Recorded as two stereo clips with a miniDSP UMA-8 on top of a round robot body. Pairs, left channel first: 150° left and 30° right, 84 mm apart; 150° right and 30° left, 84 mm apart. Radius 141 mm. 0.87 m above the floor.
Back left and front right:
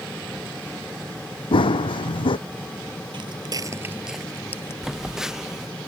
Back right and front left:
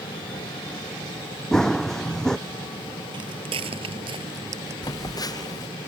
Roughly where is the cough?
I don't hear a cough.